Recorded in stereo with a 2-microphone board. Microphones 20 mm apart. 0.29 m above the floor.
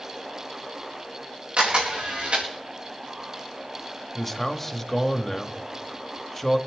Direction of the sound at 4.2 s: 15° left (ahead or behind).